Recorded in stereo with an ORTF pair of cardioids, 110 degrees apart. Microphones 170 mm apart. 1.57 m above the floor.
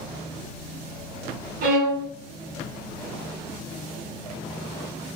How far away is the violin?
About 1.1 m.